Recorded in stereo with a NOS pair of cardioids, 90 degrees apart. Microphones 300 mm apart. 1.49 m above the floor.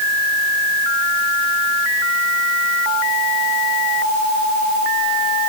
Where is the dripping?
I don't hear dripping.